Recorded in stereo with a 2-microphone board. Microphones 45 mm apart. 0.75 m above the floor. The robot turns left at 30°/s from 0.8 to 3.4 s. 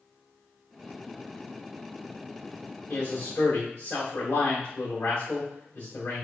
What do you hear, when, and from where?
2.9 s a man speaking: 65° left (ahead or behind), 2.0 m; by 6.2 s 70° left (ahead or behind), 2.0 m